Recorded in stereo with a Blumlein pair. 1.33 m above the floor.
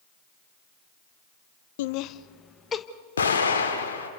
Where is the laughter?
55° left, 0.6 m; by 2.9 s 15° left, 1.6 m.